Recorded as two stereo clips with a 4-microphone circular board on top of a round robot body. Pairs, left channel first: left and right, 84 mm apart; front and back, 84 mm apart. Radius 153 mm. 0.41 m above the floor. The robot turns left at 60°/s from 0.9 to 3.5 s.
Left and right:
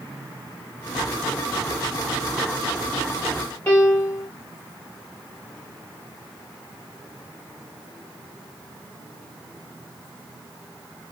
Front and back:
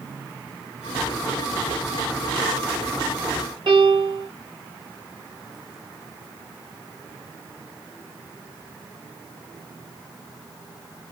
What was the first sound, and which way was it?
A piano, 155° left.